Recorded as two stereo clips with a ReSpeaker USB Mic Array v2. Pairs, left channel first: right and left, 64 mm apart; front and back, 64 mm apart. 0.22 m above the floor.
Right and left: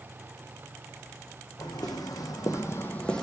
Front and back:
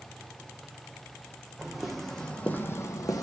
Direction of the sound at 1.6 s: 95° right.